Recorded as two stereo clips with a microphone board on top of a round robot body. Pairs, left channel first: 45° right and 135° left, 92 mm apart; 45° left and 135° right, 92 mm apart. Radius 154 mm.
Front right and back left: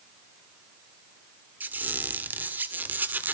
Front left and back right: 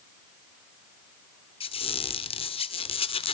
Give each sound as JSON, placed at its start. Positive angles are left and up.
{"t": 1.6, "sound": "a squeak", "azimuth_deg": 65, "distance_m": 1.5}